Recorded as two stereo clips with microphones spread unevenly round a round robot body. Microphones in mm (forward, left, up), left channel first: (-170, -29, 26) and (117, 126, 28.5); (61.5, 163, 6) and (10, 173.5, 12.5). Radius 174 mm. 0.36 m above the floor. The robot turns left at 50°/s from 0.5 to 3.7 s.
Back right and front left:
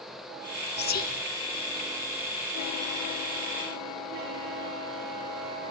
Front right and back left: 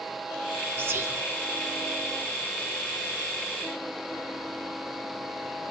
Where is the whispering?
Straight behind, 1.0 m; by 1.2 s 155° left, 1.0 m.